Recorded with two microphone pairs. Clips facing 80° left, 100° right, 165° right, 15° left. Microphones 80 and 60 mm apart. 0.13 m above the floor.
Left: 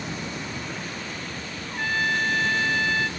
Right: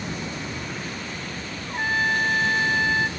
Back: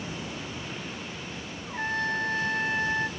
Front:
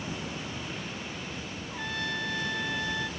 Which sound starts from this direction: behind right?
A trumpet, at 1.7 s.